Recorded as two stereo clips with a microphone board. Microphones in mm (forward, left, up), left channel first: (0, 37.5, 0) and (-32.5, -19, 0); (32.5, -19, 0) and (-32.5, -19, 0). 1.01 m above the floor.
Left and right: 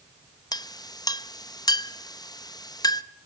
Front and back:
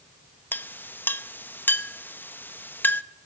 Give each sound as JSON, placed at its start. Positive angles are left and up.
{"t": 0.5, "sound": "a clink", "azimuth_deg": 60, "distance_m": 0.5}